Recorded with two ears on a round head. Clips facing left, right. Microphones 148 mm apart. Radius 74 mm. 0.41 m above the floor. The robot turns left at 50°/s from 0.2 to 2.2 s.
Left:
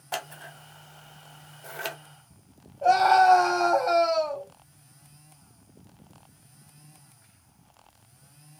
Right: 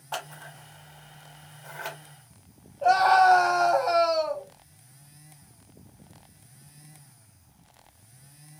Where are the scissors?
20° left (ahead or behind), 0.6 m; by 2.0 s 40° left (ahead or behind), 0.6 m.